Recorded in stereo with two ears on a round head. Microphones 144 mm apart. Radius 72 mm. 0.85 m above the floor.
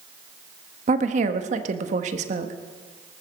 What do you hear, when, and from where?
0.9 s a woman speaking: 45° right (ahead or behind), 1.2 m